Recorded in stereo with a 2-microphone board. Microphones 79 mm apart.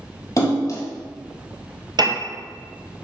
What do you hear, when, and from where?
0.4 s a splash: 45° left (ahead or behind), 1.3 m
2.0 s a piano: 65° right (ahead or behind), 0.9 m